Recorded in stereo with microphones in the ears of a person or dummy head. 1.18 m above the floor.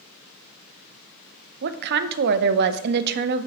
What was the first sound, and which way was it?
A woman speaking, 55° right (ahead or behind).